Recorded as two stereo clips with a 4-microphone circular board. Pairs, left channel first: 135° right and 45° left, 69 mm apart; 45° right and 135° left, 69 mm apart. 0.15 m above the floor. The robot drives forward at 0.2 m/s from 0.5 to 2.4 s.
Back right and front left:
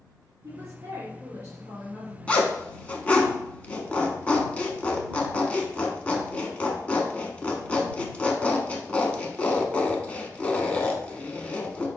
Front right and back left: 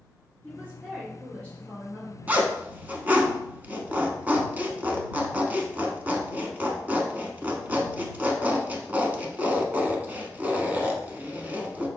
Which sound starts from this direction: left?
A woman speaking, at 0.4 s.